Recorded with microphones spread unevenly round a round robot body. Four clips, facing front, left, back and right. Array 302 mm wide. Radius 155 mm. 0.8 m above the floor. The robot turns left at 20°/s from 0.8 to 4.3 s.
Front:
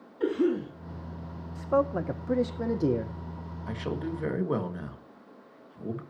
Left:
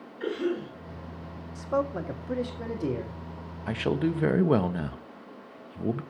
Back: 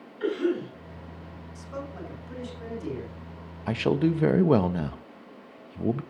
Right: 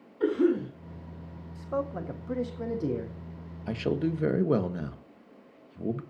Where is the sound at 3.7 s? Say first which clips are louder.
Left 2 dB, back 9 dB; straight behind, 1.1 m; by 6.0 s 170° left, 1.1 m.